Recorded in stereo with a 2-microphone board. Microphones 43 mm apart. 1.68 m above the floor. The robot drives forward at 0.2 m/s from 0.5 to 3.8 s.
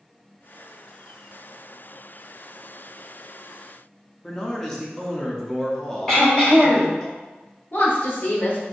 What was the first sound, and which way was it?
A man speaking, 15° left (ahead or behind).